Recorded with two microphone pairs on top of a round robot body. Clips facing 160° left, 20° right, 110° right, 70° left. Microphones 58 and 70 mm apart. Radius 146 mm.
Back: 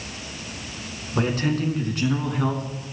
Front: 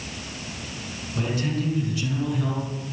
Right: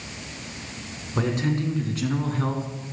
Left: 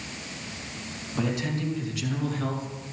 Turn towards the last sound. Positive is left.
turn(degrees=-165)